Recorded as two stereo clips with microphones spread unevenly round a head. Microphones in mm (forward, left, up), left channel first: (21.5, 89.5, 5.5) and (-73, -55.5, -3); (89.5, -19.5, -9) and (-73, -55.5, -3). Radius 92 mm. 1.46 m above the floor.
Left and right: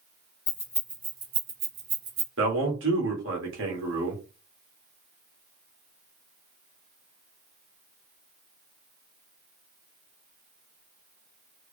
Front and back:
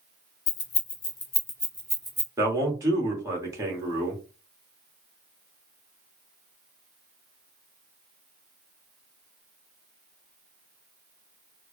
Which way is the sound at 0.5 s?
5° right.